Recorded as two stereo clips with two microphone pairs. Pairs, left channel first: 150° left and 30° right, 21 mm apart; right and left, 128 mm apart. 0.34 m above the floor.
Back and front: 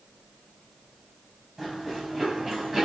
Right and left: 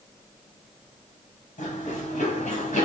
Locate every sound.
1.6 s running footsteps: 115° right, 4 m; by 2.9 s 110° right, 3.5 m